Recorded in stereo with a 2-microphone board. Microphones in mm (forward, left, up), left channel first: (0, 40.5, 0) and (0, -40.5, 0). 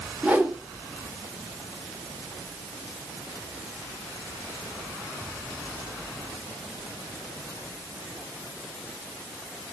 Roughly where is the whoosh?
Centre.